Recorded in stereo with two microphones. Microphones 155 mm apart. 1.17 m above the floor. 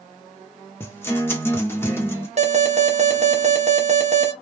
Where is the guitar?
15° left (ahead or behind), 1.0 m.